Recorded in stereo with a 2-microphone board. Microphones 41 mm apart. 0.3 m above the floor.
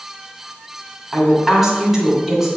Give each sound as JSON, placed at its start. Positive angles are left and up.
{"t": 1.1, "sound": "a woman speaking", "side_deg": -10, "distance_m": 2.0}